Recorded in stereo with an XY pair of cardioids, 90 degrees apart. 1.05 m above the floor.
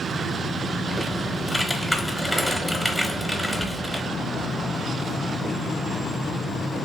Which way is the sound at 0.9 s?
Straight ahead.